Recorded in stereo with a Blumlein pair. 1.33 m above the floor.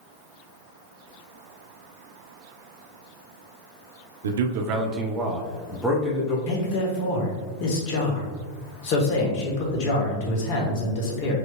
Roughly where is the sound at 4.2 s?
Ahead right.